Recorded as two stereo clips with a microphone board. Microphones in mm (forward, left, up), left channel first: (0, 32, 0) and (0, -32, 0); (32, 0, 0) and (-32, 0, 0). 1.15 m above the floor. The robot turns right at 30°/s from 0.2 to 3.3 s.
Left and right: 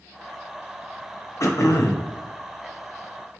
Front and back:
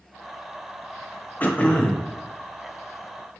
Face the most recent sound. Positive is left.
turn(degrees=120)